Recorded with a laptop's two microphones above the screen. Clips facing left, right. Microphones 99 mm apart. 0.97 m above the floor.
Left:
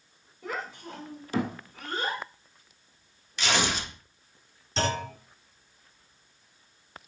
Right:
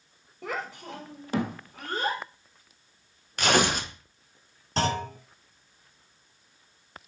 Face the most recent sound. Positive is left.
turn(degrees=-45)  # may be behind; listen again after turning